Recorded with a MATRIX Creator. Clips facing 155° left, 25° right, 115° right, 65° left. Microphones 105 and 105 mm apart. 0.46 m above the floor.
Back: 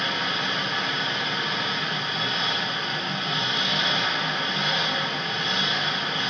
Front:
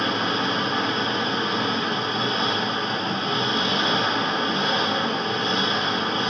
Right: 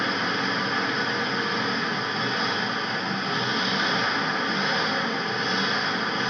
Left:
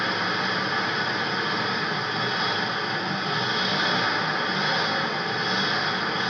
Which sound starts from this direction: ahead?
An engine running, at 0.0 s.